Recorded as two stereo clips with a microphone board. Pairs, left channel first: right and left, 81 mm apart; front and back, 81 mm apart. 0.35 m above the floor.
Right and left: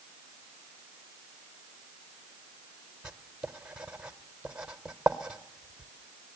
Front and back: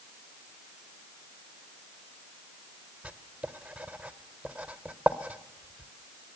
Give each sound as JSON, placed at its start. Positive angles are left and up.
{"t": 3.0, "sound": "writing", "azimuth_deg": 140, "distance_m": 0.9}